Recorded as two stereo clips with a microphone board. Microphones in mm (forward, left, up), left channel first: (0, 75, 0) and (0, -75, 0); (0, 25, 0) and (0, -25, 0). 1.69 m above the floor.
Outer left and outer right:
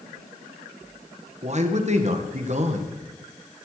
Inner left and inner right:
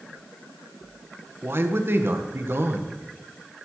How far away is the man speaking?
About 1.7 m.